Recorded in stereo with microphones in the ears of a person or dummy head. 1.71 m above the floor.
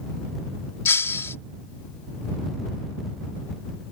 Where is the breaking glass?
15° left (ahead or behind).